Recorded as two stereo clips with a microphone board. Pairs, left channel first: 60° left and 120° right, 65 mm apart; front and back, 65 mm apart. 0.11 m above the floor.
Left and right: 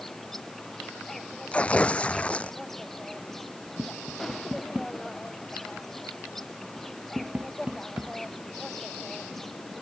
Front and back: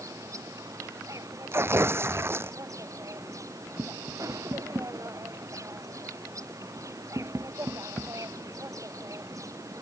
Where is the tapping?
Straight behind.